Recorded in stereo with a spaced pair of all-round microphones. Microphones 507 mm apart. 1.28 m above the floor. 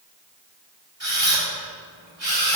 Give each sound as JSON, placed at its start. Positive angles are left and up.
{"t": 1.0, "sound": "a camera shutter", "side_deg": -55, "distance_m": 4.5}